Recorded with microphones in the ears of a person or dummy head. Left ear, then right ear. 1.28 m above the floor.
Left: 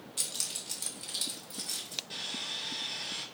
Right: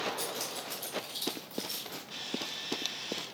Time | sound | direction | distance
0.2 | keys jangling | 65° left (ahead or behind) | 1.2 m
2.1 | sawing | 75° left (ahead or behind) | 2 m